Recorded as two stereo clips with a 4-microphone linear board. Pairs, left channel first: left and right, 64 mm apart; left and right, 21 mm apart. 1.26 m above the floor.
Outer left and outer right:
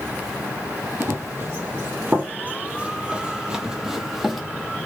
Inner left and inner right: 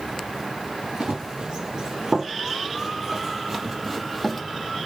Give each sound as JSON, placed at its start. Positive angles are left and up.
{"t": 1.0, "sound": "running footsteps", "side_deg": -35, "distance_m": 1.7}